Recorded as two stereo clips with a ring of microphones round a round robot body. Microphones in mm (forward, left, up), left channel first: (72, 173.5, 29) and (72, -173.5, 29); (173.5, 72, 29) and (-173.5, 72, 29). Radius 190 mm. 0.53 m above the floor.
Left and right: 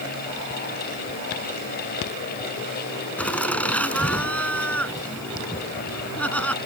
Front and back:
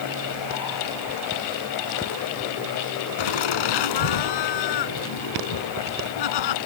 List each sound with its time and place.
3.2 s laughter: 5° left